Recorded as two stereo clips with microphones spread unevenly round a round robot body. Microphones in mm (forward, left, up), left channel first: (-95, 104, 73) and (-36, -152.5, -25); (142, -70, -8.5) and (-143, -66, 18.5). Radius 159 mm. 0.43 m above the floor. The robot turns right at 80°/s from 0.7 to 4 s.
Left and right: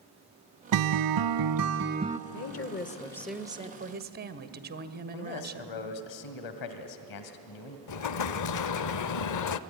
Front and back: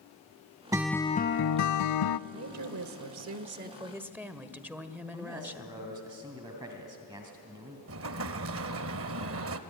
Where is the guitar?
105° right, 0.6 m; by 2.2 s 15° left, 0.6 m.